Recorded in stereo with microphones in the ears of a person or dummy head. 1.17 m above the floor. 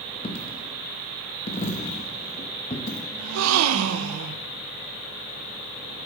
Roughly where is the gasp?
Right.